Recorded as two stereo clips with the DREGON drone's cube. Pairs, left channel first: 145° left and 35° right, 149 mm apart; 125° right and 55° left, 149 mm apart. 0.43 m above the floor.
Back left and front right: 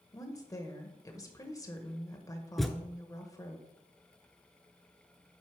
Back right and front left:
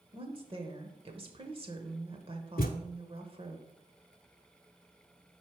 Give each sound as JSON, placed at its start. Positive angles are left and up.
{"t": 0.1, "sound": "a woman speaking", "azimuth_deg": 90, "distance_m": 1.1}
{"t": 2.6, "sound": "a thud", "azimuth_deg": -125, "distance_m": 0.7}